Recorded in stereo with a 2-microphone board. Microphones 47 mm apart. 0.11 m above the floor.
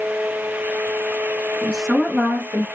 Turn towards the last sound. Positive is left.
turn(degrees=-40)  # may be behind; listen again after turning